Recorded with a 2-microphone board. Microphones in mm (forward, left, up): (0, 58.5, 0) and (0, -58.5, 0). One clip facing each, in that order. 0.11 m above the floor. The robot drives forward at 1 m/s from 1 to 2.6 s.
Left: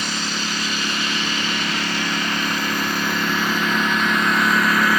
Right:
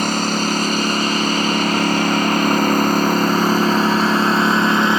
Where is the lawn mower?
50° right (ahead or behind); by 5.0 s 25° right (ahead or behind).